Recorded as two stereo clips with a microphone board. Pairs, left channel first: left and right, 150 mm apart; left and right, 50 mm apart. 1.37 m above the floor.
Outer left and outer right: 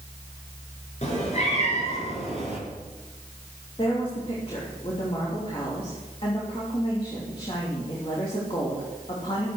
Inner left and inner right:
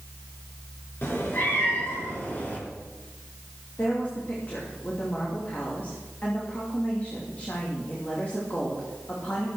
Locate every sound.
1.0 s a cat meowing: 50° left (ahead or behind), 5 m; by 2.6 s 40° left (ahead or behind), 4.5 m
3.8 s a woman speaking: 40° left (ahead or behind), 3 m